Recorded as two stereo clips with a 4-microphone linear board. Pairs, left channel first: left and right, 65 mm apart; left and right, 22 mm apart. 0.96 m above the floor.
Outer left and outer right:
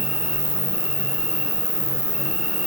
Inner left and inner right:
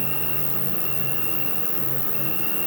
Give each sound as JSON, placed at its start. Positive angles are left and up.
{"t": 0.0, "sound": "an insect", "side_deg": 5, "distance_m": 3.0}